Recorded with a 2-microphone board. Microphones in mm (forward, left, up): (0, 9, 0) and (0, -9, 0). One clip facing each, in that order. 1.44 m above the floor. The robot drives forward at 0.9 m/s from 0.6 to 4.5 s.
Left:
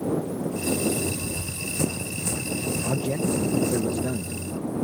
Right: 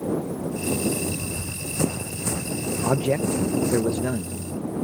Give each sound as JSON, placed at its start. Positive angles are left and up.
{"t": 1.2, "sound": "running footsteps", "side_deg": -20}
{"t": 2.8, "sound": "a man speaking", "side_deg": -85}